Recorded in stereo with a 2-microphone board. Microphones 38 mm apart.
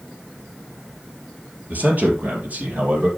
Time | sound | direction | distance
1.7 | a man speaking | 50° right (ahead or behind) | 4.5 m